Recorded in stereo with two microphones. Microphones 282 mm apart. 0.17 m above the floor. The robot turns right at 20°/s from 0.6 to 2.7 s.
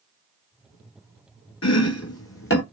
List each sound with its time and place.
1.6 s chopping: 65° left (ahead or behind), 0.7 m; by 2.6 s 45° left (ahead or behind), 0.7 m